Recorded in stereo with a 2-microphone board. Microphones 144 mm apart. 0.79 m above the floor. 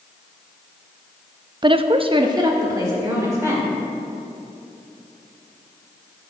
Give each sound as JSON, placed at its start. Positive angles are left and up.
{"t": 1.6, "sound": "a woman speaking", "side_deg": -30, "distance_m": 0.5}